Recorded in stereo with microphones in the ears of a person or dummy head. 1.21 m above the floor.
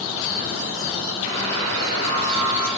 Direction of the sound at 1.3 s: 70° right (ahead or behind).